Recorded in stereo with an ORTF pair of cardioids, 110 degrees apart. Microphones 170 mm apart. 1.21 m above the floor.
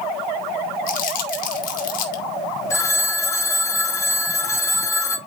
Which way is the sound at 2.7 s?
15° left.